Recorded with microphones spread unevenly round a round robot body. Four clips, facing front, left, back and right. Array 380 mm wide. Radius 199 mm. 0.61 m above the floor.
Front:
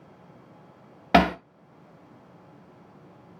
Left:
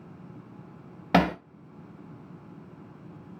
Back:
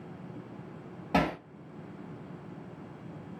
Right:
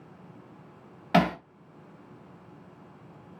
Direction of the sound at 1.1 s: 10° left.